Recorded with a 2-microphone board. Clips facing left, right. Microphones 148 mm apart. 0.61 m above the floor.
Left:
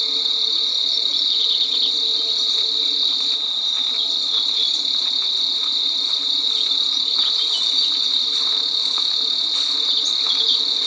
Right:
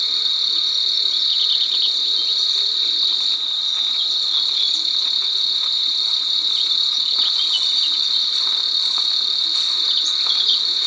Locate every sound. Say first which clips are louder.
0.0 s an insect: left 5 dB; 35° left (ahead or behind), 1.4 m